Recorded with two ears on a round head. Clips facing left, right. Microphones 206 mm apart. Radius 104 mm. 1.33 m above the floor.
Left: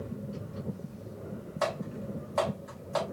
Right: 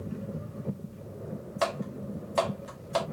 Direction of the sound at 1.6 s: 40° right (ahead or behind).